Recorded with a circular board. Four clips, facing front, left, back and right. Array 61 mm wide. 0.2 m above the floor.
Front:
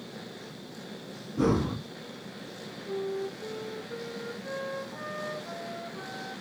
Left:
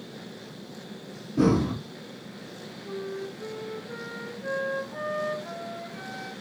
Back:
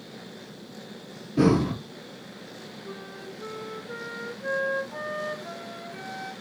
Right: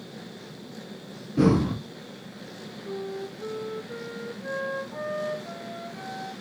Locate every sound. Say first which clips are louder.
1.4 s breathing: right 1 dB, back 5 dB; 160° right, 0.6 m
2.9 s a flute: right 1 dB, front 10 dB; 175° left, 0.8 m